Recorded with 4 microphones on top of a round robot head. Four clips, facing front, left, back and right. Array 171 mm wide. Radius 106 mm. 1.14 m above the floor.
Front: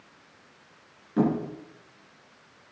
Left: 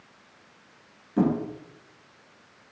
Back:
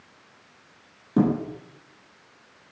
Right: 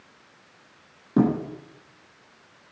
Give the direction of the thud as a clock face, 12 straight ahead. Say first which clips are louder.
Right 3 dB, back 3 dB; 4 o'clock.